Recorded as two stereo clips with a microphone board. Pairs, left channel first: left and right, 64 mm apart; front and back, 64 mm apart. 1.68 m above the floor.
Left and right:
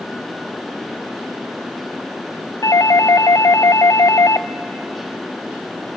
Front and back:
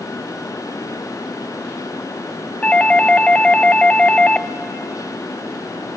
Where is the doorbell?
70° left, 0.6 m.